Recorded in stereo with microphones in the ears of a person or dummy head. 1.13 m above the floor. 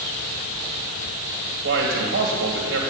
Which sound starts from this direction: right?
A man speaking, at 1.6 s.